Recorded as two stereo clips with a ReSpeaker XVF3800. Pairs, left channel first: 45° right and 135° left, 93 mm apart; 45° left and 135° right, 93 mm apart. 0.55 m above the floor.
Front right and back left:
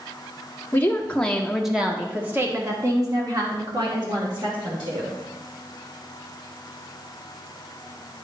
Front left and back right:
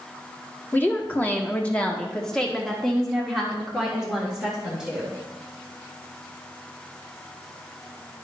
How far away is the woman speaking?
About 1.1 m.